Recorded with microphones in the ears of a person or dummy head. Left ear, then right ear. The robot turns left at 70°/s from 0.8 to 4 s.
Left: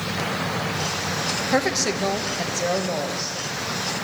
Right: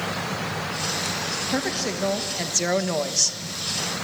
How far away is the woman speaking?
About 1.4 m.